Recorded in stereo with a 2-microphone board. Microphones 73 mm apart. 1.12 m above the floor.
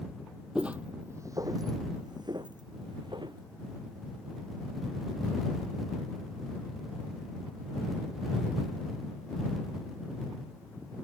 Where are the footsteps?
10° right (ahead or behind); by 3.4 s 75° right (ahead or behind).